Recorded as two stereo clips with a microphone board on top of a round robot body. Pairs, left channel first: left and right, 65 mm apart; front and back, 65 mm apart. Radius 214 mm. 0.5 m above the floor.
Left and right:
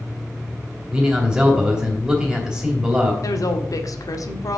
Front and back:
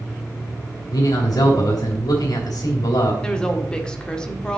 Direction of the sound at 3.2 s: 75° left.